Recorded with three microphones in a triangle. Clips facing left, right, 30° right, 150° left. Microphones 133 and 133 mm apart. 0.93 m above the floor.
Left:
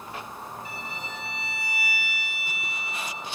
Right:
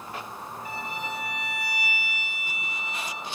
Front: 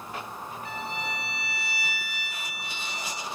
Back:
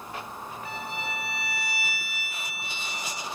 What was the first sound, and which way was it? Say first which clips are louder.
A violin: right 4 dB, front 1 dB; 125° right.